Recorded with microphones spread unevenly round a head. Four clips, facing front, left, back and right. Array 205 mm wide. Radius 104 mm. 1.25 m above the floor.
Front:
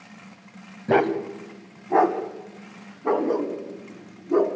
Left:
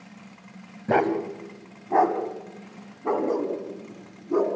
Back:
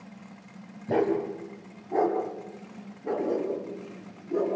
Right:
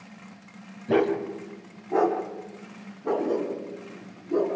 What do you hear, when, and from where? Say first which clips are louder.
0.9 s a dog barking: left 1 dB, front 4 dB; 15° left, 2.5 m; by 4.5 s 5° left, 4.5 m